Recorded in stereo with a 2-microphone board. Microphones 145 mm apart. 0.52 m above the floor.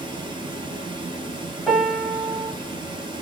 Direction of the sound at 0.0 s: 35° right (ahead or behind).